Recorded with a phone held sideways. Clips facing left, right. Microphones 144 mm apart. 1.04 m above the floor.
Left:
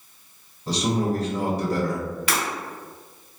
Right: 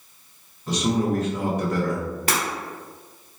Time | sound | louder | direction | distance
0.7 | a man speaking | right 1 dB | 35° left (ahead or behind) | 1.2 m
2.3 | breaking glass | right 2 dB | 45° right (ahead or behind) | 1.2 m